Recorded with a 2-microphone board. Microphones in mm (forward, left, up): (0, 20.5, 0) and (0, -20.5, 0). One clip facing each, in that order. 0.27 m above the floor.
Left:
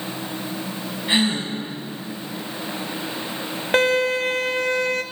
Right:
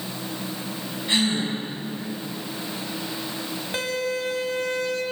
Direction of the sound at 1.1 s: 25° left (ahead or behind).